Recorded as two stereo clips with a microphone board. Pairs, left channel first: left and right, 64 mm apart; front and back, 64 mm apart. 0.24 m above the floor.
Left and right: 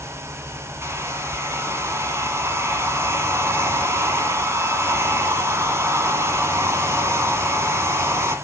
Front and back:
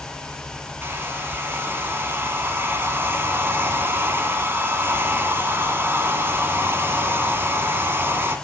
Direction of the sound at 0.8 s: 130° right.